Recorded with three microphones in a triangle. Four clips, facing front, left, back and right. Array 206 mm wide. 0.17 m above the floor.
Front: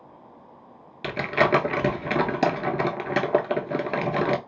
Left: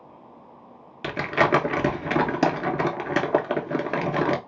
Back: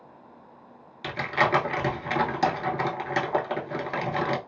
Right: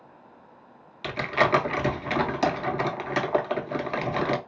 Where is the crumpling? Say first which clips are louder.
Left 2 dB, front 3 dB; 55° left, 0.7 m.